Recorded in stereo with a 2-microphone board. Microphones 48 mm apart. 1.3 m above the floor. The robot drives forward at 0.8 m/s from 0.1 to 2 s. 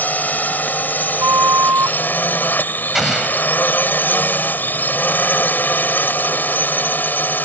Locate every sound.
0.0 s a drone: 40° left (ahead or behind); by 7.5 s 45° left (ahead or behind)
1.2 s a flute: 80° right; by 2.0 s 75° right (ahead or behind)
3.0 s an explosion: 5° right (ahead or behind)